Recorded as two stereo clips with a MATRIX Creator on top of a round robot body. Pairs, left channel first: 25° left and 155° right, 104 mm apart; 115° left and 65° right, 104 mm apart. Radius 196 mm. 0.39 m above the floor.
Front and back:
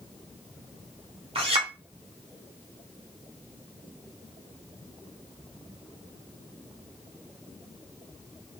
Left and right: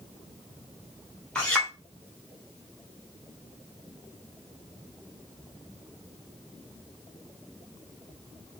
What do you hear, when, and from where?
1.4 s a clink: 170° right, 1.6 m